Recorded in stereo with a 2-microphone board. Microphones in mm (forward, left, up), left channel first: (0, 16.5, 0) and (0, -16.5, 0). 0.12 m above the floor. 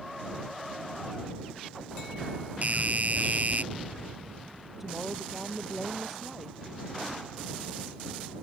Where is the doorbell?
50° right (ahead or behind).